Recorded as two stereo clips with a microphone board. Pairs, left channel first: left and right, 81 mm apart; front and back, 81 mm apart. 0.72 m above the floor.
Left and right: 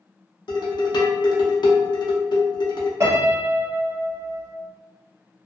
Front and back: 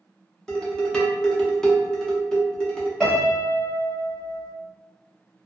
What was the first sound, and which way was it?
Dishes clattering, 80° left.